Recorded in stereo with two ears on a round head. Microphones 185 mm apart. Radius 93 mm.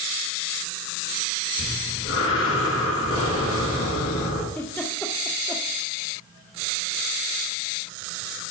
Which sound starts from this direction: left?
Breathing, at 1.6 s.